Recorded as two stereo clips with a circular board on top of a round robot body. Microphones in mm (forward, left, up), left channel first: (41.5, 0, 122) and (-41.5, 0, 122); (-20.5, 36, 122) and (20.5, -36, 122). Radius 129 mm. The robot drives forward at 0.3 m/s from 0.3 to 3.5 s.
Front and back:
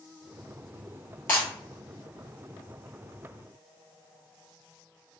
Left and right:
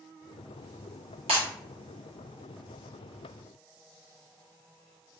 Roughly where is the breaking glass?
Ahead right.